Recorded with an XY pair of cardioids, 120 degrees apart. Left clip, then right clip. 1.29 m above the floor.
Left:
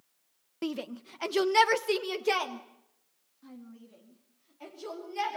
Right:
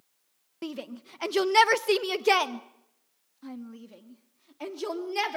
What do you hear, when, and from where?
0.6 s a shout: 15° left, 1.2 m; by 5.4 s 60° right, 3.5 m